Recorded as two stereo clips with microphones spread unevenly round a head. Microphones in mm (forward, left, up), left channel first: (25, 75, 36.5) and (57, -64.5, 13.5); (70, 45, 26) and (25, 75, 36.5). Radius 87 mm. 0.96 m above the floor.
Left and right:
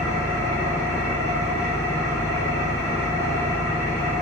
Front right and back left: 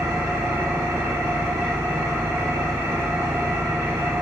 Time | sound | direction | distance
0.0 | an engine running | 135° left | 1.3 m